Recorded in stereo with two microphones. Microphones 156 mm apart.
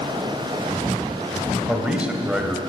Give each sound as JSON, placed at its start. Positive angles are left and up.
{"t": 1.7, "sound": "a man speaking", "side_deg": -5, "distance_m": 1.8}